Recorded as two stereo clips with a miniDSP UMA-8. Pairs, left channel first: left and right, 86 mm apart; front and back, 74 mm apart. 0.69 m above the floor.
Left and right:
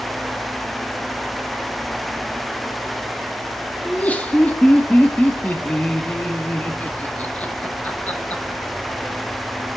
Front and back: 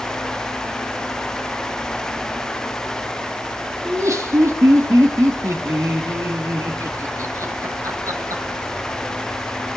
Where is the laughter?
155° left, 1.4 m.